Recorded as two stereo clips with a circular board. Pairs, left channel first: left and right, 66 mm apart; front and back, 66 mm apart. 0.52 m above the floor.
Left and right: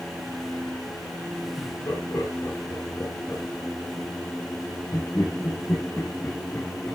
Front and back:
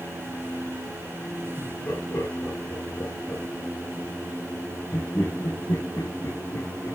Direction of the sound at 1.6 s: 50° left.